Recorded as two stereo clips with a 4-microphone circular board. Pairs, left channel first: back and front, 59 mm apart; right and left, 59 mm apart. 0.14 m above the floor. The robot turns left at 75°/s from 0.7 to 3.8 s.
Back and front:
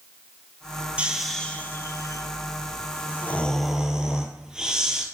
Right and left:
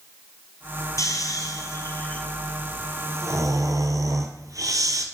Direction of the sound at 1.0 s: 70° right.